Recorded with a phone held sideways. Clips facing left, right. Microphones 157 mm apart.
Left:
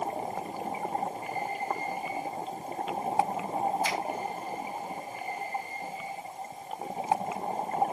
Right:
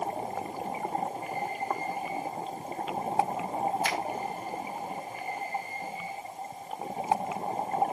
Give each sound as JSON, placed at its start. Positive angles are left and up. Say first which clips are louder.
{"t": 3.8, "sound": "a finger snap", "louder": "even", "side_deg": -70, "distance_m": 2.0}